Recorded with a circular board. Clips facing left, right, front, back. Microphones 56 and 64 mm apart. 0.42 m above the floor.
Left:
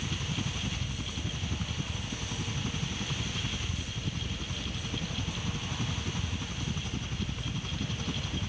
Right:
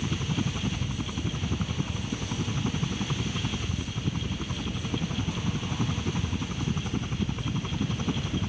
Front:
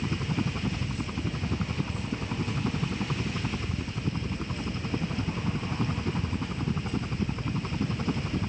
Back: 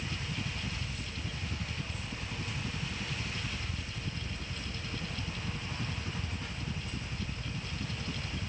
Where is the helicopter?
30° right.